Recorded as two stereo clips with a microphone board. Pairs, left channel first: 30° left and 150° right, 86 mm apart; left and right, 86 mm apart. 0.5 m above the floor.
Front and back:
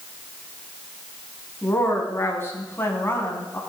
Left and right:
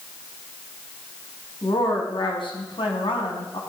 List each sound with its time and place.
1.6 s a woman speaking: 90° left, 4.5 m